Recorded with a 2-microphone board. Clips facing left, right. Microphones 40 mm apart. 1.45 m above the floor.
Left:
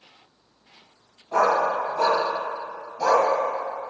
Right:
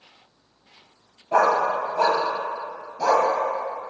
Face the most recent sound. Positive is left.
turn(degrees=0)  # may be behind; listen again after turning